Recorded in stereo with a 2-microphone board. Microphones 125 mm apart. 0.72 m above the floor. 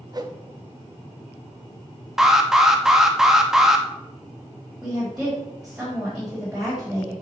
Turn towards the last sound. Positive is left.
turn(degrees=-5)  # may be behind; listen again after turning